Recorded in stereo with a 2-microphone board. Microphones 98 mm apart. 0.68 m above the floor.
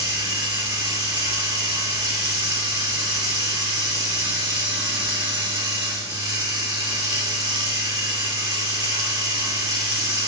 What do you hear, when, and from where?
0.0 s running water: 45° right (ahead or behind), 0.7 m